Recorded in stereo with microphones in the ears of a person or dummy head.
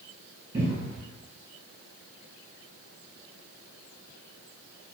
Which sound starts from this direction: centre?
A cupboard door, at 0.5 s.